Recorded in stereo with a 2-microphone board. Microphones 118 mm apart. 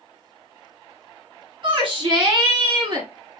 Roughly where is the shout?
Right.